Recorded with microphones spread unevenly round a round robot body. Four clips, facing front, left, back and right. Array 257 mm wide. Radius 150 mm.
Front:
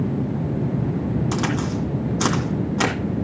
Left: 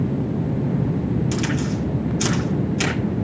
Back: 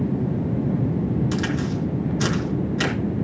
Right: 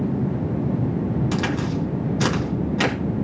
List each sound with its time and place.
1.3 s a crack: 20° right, 3 m